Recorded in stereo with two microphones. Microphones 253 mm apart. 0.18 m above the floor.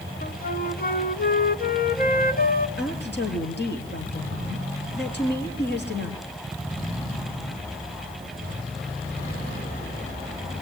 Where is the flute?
40° left (ahead or behind), 1.0 m.